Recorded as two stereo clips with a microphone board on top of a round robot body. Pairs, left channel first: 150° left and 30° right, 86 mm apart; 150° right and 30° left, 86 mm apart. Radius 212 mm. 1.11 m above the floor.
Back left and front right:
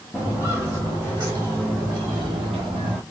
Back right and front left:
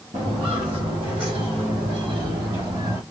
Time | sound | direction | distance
0.1 | footsteps | 45° left | 1.3 m